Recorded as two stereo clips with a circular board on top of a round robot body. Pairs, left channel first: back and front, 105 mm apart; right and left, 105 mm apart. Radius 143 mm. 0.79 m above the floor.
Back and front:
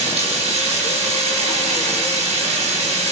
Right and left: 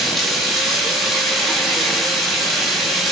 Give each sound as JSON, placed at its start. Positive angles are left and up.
{"t": 0.0, "sound": "running water", "azimuth_deg": 0, "distance_m": 5.5}